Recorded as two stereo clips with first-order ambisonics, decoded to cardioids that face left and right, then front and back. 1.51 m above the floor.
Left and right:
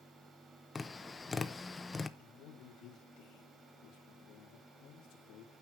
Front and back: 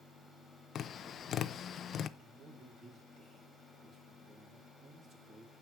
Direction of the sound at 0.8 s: 25° left.